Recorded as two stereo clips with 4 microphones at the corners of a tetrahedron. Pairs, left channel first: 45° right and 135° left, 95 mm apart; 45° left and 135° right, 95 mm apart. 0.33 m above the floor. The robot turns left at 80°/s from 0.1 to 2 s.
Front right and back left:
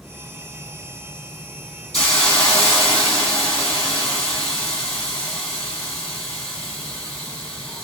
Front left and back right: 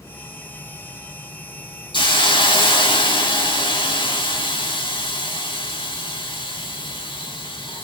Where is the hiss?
45° left, 2 m; by 7.8 s 40° left, 2 m.